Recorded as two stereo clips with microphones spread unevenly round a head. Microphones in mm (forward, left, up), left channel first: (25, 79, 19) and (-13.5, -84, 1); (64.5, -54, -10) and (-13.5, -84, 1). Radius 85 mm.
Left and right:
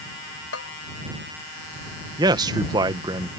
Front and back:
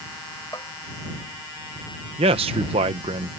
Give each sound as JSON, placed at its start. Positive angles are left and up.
{"t": 0.5, "sound": "a bell", "azimuth_deg": 90}
{"t": 2.2, "sound": "a man speaking", "azimuth_deg": -170}